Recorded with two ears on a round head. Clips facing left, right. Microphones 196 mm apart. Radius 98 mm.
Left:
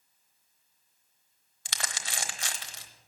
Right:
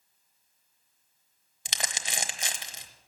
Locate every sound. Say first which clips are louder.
1.6 s crumpling: right 2 dB; 20° right (ahead or behind), 0.9 m